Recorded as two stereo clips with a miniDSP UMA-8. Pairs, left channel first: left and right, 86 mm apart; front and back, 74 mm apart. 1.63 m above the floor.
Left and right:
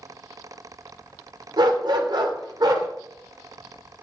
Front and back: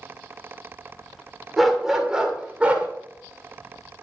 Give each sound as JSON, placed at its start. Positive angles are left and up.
{"t": 1.6, "sound": "a dog barking", "azimuth_deg": -90, "distance_m": 2.5}